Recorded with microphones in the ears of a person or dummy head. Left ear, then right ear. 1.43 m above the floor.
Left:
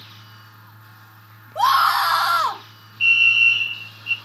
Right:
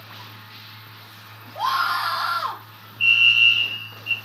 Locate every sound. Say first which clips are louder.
1.6 s a scream: left 6 dB; 50° left (ahead or behind), 2 m
3.0 s a fire alarm: even; 10° left (ahead or behind), 3 m